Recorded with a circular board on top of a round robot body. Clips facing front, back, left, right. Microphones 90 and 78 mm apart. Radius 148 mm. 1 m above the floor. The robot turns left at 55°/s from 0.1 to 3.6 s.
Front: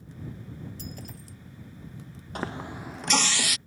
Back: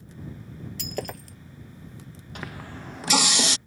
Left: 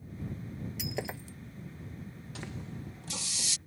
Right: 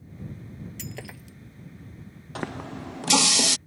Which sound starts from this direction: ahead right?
A running tap, at 2.4 s.